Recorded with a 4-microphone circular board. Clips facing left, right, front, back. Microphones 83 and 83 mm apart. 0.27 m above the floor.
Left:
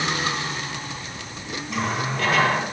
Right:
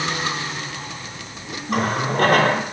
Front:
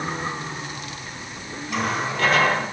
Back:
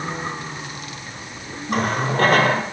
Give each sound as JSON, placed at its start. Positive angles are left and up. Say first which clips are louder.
{"t": 1.7, "sound": "a running tap", "louder": "right 5 dB, back 4 dB", "azimuth_deg": -135, "distance_m": 4.0}